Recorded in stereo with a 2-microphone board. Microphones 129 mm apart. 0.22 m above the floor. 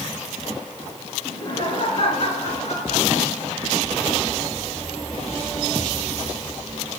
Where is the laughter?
35° left (ahead or behind), 2.5 m; by 3.7 s 65° left (ahead or behind), 3.5 m.